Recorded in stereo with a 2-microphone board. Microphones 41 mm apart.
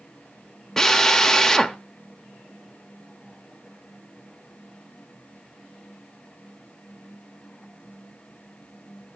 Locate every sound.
0.8 s a drill: 15° left (ahead or behind), 0.6 m